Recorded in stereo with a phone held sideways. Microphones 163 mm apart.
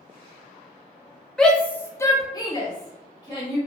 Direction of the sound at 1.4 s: 5° left (ahead or behind).